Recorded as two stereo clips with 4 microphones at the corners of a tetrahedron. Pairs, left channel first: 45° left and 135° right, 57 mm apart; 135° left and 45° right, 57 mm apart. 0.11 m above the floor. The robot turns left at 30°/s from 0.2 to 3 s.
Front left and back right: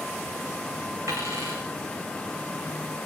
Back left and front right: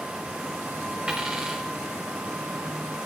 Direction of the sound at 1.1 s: 115° right.